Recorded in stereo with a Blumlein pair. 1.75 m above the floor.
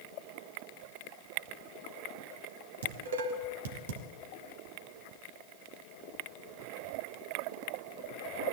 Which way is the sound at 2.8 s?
65° right.